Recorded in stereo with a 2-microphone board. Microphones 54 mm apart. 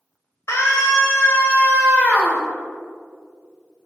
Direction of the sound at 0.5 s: 60° left (ahead or behind).